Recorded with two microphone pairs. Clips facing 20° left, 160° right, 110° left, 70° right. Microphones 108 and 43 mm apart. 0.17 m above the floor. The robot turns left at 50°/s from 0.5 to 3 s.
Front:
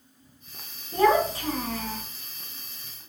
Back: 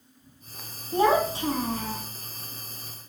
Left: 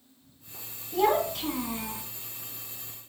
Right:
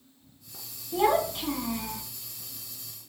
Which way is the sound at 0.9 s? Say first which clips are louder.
Front 1 dB, even; 125° right.